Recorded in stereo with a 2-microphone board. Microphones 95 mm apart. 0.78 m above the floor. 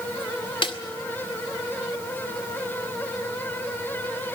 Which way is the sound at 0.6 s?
65° left (ahead or behind).